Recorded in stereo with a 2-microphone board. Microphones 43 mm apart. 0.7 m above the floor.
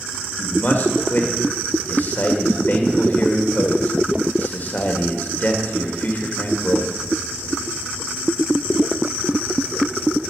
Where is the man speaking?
45° left (ahead or behind), 1.9 m.